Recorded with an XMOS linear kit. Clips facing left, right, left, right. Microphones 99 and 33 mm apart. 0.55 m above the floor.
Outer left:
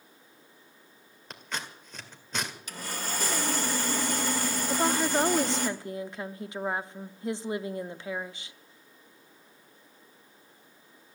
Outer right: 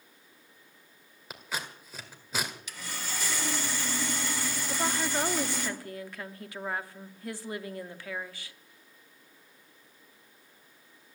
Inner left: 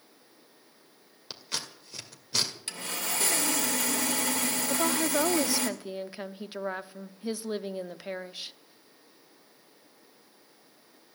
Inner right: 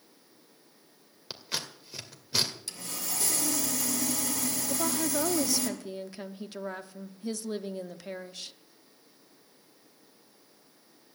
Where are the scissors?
5° right (ahead or behind), 1.9 m.